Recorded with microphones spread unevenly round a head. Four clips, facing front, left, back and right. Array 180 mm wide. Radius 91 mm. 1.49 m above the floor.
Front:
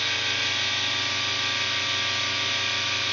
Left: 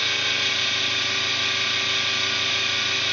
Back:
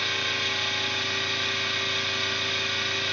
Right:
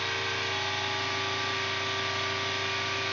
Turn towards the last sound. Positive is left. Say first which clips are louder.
# left 3 dB, even
turn(degrees=135)